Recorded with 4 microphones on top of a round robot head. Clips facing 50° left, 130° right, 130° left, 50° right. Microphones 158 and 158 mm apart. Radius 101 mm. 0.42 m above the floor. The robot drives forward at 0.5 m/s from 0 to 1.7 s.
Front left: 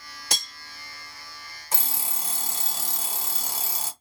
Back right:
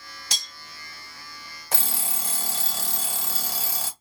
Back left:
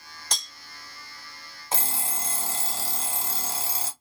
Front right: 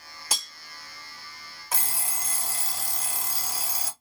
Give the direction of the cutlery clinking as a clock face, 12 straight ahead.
11 o'clock.